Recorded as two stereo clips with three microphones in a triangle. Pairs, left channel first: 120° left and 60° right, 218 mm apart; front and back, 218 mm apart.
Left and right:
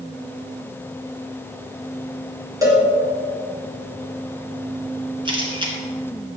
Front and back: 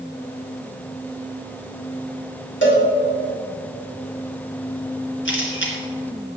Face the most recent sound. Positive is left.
turn(degrees=5)